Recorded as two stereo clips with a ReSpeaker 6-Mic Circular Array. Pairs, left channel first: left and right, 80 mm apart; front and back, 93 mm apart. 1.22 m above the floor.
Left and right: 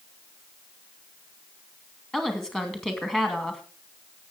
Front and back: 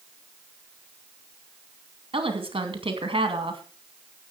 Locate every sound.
2.1 s a woman speaking: 170° left, 2.5 m